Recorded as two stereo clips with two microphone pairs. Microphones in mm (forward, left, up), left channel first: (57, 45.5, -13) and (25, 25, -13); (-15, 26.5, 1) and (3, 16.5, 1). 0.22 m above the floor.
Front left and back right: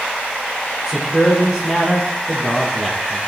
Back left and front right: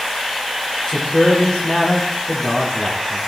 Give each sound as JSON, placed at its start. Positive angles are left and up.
{"t": 0.9, "sound": "a man speaking", "azimuth_deg": 115, "distance_m": 5.0}